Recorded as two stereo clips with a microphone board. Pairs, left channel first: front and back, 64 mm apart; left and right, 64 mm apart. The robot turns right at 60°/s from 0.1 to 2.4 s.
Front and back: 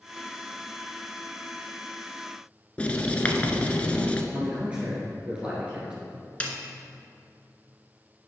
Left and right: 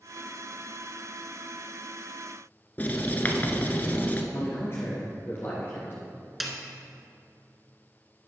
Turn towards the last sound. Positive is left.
turn(degrees=-5)